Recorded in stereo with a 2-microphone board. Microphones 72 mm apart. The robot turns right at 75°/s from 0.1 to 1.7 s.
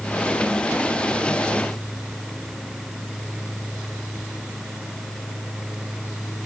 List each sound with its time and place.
Only background noise.